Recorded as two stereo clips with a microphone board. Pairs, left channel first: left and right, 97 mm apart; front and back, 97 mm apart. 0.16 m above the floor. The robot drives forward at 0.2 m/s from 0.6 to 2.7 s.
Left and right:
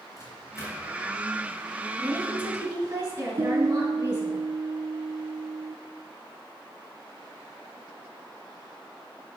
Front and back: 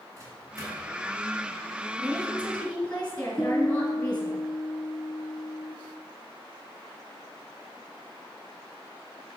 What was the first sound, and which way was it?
A microwave, 135° left.